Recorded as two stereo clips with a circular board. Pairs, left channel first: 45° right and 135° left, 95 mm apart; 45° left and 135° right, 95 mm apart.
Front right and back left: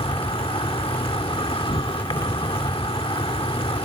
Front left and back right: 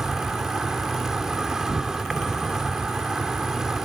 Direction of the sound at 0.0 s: 50° right.